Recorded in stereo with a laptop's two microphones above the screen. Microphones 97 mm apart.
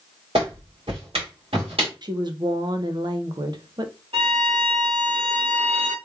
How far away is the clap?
About 2 m.